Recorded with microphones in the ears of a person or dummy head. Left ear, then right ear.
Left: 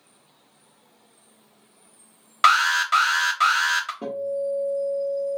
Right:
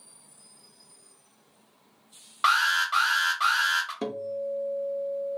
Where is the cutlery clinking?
I don't hear cutlery clinking.